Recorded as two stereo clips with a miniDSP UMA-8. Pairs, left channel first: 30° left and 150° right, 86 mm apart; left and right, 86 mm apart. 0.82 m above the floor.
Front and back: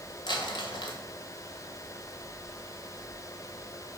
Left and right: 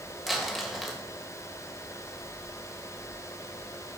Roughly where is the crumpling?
Ahead.